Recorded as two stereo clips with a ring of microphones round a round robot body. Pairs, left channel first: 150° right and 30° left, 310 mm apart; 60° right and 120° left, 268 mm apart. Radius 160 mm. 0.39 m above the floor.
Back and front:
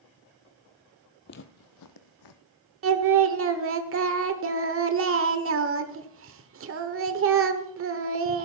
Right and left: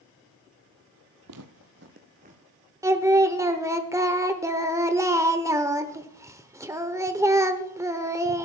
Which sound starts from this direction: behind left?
Footsteps, at 1.3 s.